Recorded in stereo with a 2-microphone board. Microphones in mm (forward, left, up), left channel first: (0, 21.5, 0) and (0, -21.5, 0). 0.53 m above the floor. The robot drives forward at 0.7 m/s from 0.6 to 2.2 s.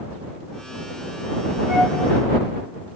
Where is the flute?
55° right (ahead or behind), 2 m.